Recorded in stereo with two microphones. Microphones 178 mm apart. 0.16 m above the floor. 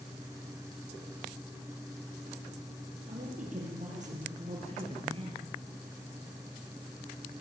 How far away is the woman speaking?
About 5.5 m.